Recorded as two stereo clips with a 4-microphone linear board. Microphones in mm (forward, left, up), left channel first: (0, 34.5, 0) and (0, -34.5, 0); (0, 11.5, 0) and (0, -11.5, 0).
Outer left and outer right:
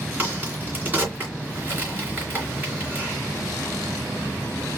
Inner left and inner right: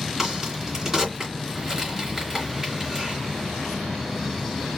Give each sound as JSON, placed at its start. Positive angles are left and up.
{"t": 0.2, "sound": "a crack", "side_deg": -30, "distance_m": 3.0}